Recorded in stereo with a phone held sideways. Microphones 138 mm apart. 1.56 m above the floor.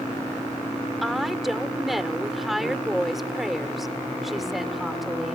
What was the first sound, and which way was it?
A woman speaking, centre (ahead or behind).